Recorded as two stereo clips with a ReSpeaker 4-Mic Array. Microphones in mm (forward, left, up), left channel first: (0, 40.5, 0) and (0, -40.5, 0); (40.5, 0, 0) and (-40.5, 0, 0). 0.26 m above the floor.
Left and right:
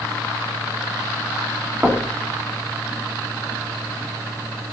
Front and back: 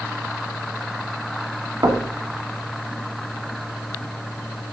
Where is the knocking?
155° right, 1.3 m.